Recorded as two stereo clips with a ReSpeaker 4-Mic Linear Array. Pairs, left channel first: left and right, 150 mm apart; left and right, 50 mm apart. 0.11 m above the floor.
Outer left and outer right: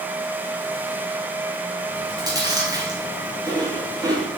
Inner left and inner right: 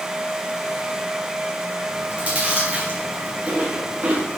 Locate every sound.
1.9 s chewing: 25° right (ahead or behind), 4 m